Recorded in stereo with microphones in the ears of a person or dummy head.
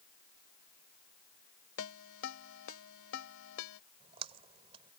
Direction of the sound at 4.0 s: 35° right (ahead or behind).